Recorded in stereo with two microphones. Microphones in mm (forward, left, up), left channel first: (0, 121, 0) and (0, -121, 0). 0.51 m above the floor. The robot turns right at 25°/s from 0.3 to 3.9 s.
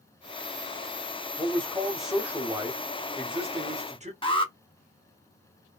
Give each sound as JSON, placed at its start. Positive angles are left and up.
{"t": 1.4, "sound": "a man speaking", "azimuth_deg": 165, "distance_m": 1.0}
{"t": 4.2, "sound": "an alarm", "side_deg": 20, "distance_m": 0.7}